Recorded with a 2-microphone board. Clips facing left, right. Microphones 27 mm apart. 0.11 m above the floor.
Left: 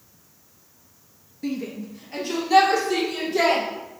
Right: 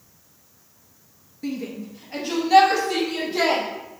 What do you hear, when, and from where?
1.4 s a shout: 5° left (ahead or behind), 1.8 m; by 3.6 s 20° right (ahead or behind), 4 m